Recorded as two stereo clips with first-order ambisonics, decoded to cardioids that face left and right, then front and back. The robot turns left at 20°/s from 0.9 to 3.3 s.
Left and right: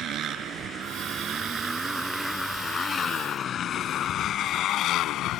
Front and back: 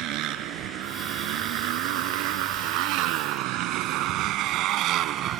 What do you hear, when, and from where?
0.0 s a motorcycle: 140° right; by 5.4 s 130° left